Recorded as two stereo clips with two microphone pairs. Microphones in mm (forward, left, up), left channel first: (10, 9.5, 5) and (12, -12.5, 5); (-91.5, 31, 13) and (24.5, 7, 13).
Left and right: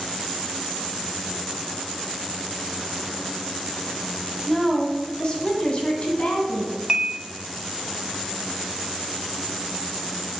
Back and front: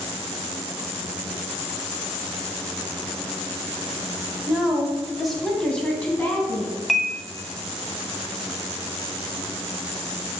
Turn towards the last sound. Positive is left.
turn(degrees=-105)